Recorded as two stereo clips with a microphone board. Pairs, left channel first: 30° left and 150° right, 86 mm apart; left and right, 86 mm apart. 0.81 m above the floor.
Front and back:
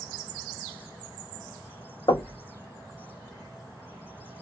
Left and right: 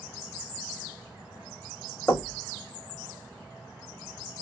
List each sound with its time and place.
2.1 s knocking: 25° left, 0.9 m